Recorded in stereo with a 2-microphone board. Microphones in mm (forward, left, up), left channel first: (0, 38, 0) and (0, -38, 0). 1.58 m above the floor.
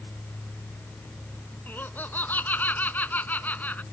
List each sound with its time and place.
1.7 s laughter: 25° left (ahead or behind); by 3.8 s 20° left (ahead or behind)